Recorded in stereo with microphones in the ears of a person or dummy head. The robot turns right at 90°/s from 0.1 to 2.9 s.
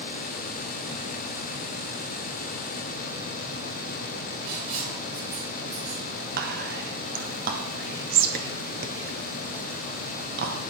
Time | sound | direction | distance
4.5 | writing | 50° right (ahead or behind) | 3 m
6.4 | whispering | 45° right (ahead or behind) | 0.7 m